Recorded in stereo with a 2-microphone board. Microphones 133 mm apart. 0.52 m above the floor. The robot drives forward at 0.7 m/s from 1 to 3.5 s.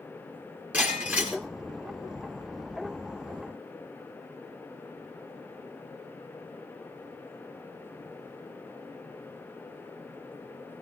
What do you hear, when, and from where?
0.7 s breaking glass: 15° right (ahead or behind), 6.5 m